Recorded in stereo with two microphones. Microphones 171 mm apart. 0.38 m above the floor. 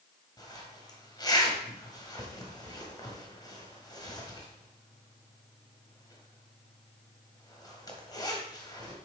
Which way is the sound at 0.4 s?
25° left (ahead or behind).